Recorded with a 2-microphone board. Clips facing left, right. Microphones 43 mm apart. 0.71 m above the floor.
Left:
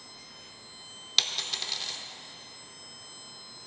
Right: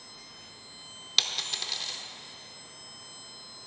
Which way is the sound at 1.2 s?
Centre (ahead or behind).